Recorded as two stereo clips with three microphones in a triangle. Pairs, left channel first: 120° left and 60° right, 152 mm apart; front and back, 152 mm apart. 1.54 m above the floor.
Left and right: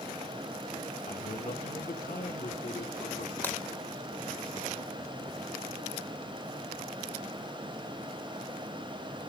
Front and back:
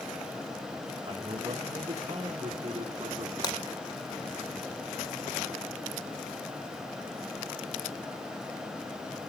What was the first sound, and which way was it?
A man speaking, 125° left.